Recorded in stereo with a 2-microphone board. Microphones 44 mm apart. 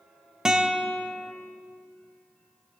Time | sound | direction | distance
0.5 | a guitar | 15° right (ahead or behind) | 0.8 m